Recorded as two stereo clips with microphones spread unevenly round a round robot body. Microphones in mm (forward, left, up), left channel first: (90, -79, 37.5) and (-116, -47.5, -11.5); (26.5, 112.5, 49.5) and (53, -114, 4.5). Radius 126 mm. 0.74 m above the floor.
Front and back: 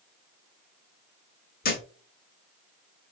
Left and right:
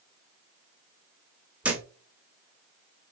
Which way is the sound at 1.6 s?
10° left.